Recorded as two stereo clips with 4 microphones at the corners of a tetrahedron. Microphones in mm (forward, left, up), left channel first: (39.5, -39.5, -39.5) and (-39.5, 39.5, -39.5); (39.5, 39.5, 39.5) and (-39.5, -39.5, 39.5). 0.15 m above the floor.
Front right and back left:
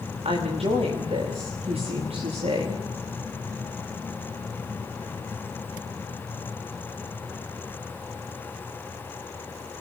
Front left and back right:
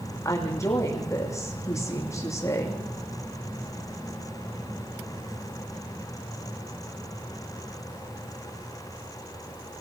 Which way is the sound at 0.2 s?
110° left.